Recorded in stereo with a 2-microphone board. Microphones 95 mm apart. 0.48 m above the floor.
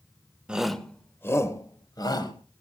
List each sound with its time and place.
0.5 s a shout: 10° right (ahead or behind), 1.3 m; by 2.3 s 50° left (ahead or behind), 2.5 m